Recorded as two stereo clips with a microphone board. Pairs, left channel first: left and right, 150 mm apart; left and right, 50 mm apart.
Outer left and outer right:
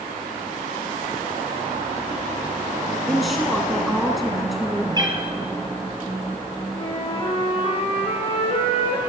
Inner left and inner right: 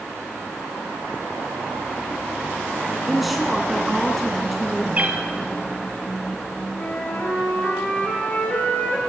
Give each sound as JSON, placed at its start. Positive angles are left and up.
{"t": 3.1, "sound": "a woman speaking", "side_deg": 0, "distance_m": 1.1}
{"t": 5.0, "sound": "a cat meowing", "side_deg": -30, "distance_m": 1.8}
{"t": 6.7, "sound": "a flute", "side_deg": 35, "distance_m": 3.0}